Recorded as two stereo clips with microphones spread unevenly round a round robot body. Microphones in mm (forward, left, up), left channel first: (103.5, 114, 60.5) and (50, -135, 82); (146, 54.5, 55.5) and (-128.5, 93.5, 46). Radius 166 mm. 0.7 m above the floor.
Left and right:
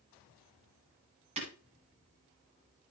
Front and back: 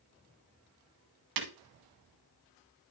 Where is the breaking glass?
170° right, 1.5 m.